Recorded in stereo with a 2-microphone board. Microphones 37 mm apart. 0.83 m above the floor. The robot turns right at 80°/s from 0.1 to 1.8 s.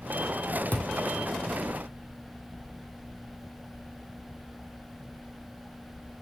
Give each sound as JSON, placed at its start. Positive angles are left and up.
{"t": 0.7, "sound": "a thud", "side_deg": 50, "distance_m": 1.7}